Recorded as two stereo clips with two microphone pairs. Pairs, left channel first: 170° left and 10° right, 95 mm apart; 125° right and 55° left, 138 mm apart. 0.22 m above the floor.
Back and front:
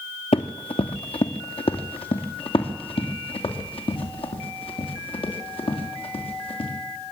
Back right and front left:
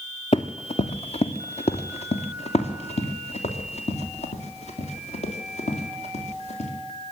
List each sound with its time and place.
0.3 s running footsteps: straight behind, 1.2 m; by 6.7 s 165° right, 5.5 m